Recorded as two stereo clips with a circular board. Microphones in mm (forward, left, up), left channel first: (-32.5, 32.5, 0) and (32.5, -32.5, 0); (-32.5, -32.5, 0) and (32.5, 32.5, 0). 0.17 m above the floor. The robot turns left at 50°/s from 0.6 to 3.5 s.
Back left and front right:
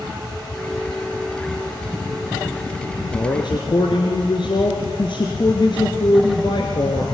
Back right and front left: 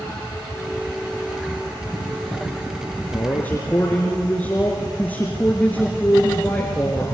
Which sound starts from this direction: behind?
A man speaking, at 3.1 s.